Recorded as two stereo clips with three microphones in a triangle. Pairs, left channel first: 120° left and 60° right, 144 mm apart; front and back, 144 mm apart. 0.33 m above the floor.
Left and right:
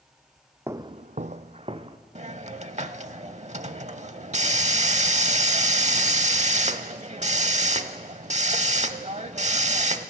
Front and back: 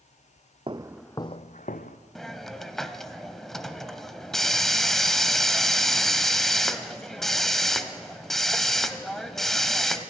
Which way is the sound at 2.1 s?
90° right.